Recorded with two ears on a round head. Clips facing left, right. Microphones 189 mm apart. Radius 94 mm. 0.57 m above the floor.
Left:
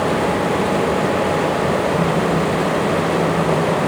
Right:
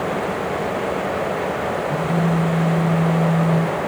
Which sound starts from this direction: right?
A phone buzzing, at 1.9 s.